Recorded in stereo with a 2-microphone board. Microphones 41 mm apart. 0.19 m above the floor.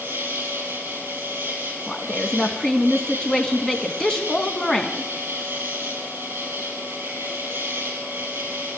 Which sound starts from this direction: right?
An insect, at 0.0 s.